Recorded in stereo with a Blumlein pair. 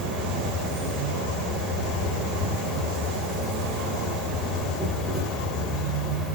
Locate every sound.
0.0 s an insect: 15° right, 1.1 m